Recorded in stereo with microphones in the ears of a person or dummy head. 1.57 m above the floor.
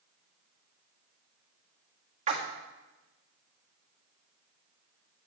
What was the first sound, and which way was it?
A splash, 40° right (ahead or behind).